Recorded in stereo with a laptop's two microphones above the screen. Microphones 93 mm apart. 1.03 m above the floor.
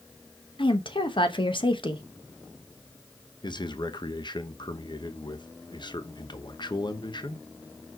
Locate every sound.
0.6 s a woman speaking: 60° left (ahead or behind), 1.1 m
3.4 s a man speaking: 50° left (ahead or behind), 0.8 m